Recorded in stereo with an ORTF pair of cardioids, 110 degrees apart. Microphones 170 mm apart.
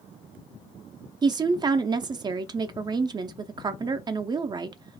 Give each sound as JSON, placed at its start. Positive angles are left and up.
{"t": 1.2, "sound": "a woman speaking", "azimuth_deg": -25, "distance_m": 0.5}